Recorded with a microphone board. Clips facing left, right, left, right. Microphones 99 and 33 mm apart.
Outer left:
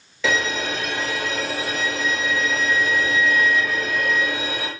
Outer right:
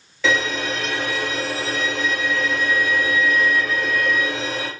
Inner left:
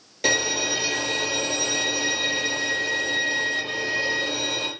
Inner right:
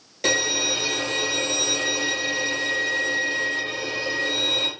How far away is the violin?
About 2.5 m.